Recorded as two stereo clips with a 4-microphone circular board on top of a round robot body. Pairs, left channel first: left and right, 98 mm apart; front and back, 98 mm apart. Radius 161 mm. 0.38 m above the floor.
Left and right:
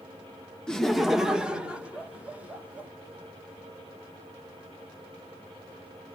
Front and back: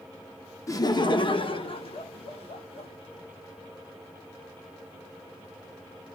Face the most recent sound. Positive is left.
turn(degrees=-15)